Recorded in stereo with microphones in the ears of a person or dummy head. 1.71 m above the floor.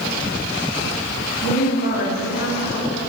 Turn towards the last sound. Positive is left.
turn(degrees=60)  # may be behind; listen again after turning